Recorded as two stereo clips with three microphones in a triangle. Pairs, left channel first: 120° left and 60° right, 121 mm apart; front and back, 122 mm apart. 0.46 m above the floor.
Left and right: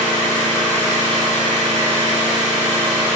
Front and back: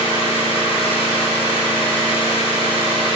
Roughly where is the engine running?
Ahead right.